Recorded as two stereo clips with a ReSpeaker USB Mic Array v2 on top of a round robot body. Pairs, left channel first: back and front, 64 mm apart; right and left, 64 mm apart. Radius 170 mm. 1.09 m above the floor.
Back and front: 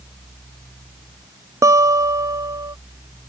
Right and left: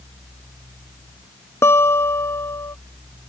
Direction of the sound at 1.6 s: 40° right.